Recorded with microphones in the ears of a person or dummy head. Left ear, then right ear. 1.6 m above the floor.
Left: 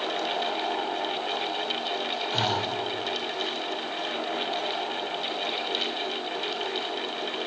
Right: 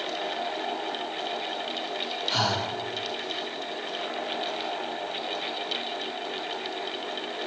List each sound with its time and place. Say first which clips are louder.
2.3 s breathing: right 2 dB; 55° right (ahead or behind), 1.9 m